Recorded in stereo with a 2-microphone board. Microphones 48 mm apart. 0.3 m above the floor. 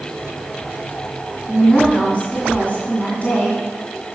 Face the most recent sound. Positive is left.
turn(degrees=35)  # may be behind; listen again after turning